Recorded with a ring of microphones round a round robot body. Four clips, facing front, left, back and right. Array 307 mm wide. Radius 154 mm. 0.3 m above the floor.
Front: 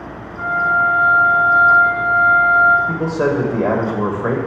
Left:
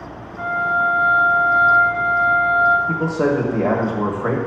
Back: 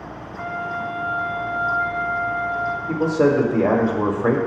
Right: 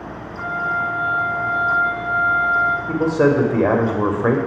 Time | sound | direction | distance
0.4 | a flute | 25° left | 1.0 m
2.9 | a man speaking | 75° right | 1.0 m